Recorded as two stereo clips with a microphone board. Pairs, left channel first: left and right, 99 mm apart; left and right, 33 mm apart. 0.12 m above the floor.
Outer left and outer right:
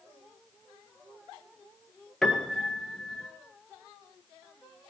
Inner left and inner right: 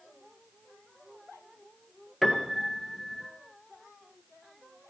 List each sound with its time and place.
2.2 s a piano: 5° left (ahead or behind), 1.8 m